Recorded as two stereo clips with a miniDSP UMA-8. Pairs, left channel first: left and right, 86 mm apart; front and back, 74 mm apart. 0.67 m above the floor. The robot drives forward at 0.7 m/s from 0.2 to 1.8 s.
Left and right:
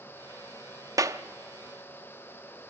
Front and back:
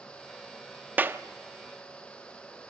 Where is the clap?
120° right, 0.7 m; by 1.2 s 130° right, 0.8 m.